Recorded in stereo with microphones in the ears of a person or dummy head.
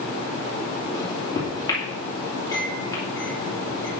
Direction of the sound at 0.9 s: 20° left (ahead or behind).